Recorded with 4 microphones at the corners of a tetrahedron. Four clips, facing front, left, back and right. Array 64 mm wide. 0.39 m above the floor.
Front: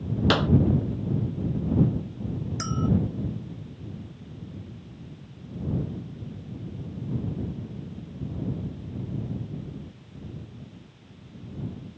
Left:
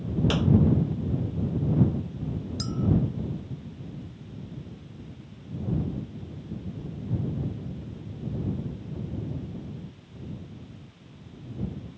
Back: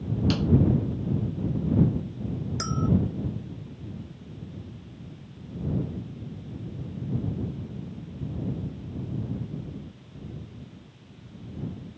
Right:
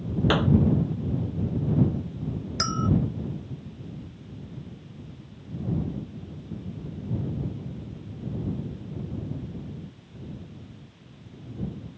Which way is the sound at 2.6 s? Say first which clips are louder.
Right 3 dB, front 1 dB; 90° right.